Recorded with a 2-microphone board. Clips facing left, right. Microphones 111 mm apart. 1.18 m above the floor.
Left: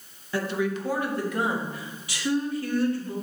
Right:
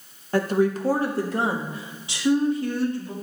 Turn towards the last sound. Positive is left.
turn(degrees=-20)  # may be behind; listen again after turning